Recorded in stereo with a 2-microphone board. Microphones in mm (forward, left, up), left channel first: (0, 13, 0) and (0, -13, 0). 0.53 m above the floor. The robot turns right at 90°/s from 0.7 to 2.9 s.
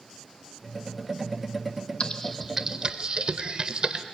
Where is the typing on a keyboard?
40° left (ahead or behind), 0.9 m; by 4.0 s 35° right (ahead or behind), 0.9 m.